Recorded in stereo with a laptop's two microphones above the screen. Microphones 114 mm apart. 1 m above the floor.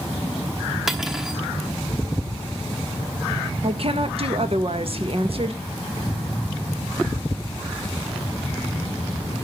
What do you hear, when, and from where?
0.9 s cutlery clinking: 5° right (ahead or behind), 1.0 m
3.6 s a woman speaking: 55° right (ahead or behind), 1.3 m